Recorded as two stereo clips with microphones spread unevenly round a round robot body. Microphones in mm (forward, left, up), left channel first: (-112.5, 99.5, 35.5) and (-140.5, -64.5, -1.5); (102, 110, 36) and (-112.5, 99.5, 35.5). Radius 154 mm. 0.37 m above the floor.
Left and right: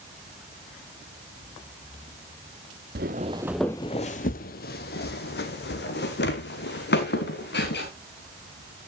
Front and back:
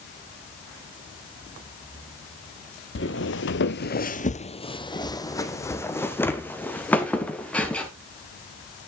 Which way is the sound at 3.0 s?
45° right.